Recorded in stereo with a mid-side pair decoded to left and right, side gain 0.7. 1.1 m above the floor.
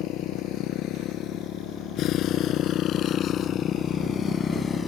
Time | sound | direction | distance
0.0 | a motorcycle | 60° left | ?